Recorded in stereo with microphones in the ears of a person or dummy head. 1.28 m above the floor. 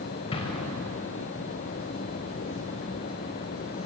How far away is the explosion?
About 3.5 m.